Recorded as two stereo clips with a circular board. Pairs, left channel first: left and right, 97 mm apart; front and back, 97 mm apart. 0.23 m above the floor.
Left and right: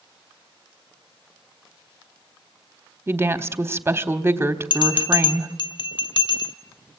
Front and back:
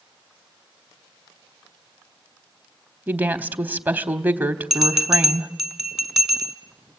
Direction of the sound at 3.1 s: 125° right.